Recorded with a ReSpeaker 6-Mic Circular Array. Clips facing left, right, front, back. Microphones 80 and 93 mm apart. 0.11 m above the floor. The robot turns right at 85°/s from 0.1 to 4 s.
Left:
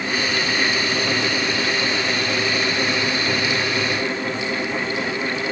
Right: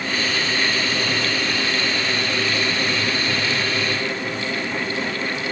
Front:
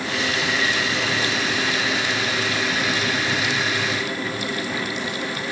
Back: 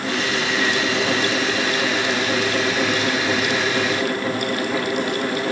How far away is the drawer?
I don't hear a drawer.